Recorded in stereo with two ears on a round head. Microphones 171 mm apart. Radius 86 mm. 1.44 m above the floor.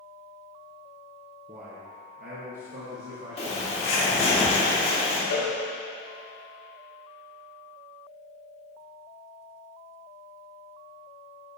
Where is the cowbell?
65° left (ahead or behind), 0.8 m.